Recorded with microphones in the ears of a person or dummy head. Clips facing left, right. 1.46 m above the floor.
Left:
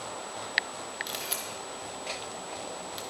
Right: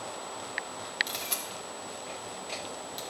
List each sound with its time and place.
1.1 s a camera shutter: centre (ahead or behind), 1.5 m